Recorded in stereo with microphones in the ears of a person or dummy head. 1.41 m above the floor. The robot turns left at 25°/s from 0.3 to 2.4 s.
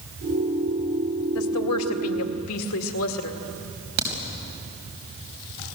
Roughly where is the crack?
Right.